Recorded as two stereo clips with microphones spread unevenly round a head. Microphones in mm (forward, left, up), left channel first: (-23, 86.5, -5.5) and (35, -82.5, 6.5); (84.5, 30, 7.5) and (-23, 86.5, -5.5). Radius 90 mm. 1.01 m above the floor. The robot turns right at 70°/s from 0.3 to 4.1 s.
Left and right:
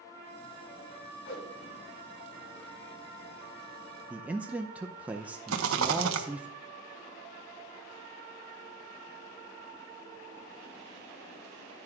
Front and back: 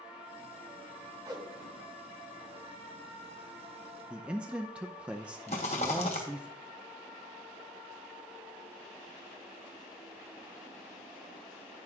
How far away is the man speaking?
About 0.5 m.